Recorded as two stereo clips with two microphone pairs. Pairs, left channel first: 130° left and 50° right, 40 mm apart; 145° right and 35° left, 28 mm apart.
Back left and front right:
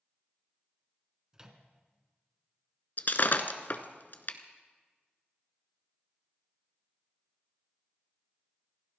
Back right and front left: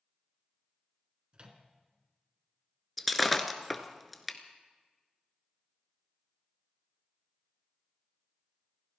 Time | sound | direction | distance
1.3 | a microwave | 15° left | 1.6 m
3.0 | breaking glass | 125° left | 1.0 m